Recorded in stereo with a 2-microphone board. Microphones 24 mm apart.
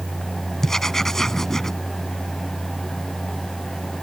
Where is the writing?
20° left (ahead or behind).